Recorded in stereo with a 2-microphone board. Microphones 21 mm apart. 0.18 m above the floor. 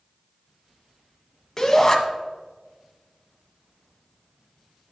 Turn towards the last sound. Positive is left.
turn(degrees=20)  # may be behind; listen again after turning